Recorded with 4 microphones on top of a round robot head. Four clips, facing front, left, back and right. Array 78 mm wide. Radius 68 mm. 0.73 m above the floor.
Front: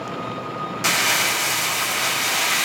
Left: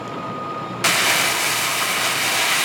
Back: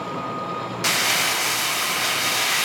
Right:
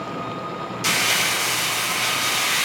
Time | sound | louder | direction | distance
0.8 | crumpling | left 3 dB, front 2 dB | 85° left | 0.6 m